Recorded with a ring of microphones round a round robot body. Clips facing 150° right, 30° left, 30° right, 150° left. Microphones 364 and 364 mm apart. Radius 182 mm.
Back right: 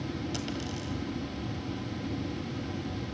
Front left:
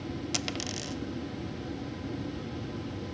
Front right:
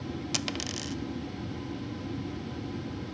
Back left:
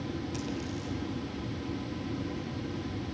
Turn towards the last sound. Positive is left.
turn(degrees=-30)